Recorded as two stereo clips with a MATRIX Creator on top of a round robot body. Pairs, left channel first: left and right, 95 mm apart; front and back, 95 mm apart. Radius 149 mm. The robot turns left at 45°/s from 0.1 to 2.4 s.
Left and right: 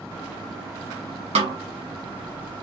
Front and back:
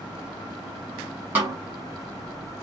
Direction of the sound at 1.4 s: 110° right.